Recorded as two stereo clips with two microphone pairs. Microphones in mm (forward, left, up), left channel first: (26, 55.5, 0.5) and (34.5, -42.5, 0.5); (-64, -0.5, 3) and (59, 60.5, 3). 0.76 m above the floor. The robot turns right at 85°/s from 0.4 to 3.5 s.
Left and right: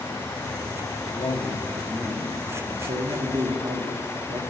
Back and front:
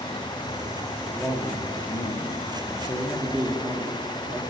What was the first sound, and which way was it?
A man speaking, 120° left.